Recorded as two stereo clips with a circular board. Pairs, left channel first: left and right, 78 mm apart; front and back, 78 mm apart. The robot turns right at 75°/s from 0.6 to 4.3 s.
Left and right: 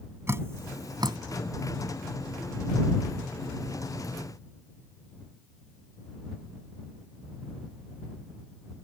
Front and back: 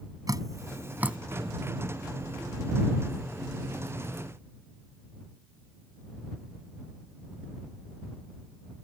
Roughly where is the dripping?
Behind right.